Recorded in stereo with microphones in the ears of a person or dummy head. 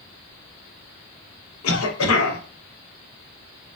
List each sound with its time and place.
1.6 s a cough: 80° left, 0.9 m